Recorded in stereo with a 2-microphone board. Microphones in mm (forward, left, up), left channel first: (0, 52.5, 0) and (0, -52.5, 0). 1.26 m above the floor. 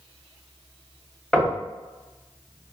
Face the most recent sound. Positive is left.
turn(degrees=10)  # may be behind; listen again after turning